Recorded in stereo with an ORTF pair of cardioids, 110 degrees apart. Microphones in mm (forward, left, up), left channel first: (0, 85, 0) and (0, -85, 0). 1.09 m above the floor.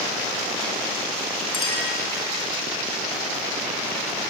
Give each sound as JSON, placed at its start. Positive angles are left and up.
{"t": 1.5, "sound": "a clink", "azimuth_deg": 30, "distance_m": 6.5}